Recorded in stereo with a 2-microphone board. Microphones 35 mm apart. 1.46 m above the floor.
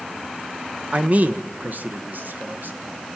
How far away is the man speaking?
About 1.1 m.